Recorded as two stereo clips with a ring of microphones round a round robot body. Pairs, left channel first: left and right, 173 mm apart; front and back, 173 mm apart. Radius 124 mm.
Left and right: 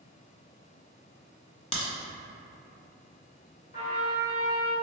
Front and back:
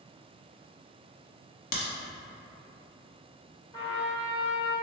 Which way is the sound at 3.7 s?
60° left.